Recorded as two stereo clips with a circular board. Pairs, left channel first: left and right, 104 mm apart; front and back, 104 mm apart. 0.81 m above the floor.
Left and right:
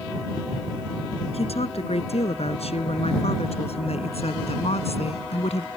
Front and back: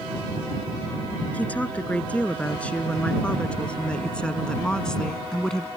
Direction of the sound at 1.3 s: 75° left.